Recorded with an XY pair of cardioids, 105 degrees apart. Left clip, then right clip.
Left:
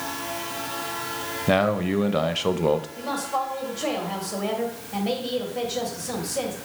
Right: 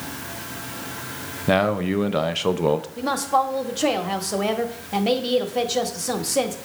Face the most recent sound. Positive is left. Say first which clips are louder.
# right 6 dB
turn(degrees=-55)